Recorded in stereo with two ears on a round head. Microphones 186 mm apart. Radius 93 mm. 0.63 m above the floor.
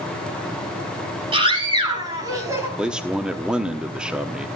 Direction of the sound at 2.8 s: 5° right (ahead or behind).